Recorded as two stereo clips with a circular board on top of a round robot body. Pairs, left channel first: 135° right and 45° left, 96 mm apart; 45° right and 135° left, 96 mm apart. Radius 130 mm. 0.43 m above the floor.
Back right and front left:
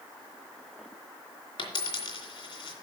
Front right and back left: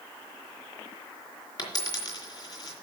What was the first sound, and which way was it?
A dropped coin, 95° right.